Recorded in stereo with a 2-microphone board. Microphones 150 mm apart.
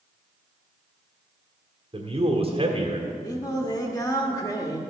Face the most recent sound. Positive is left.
turn(degrees=25)  # may be behind; listen again after turning